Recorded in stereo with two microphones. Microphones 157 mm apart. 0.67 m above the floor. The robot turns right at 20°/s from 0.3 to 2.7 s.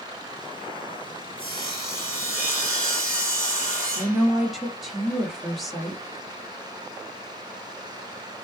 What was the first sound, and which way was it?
Sawing, 10° left (ahead or behind).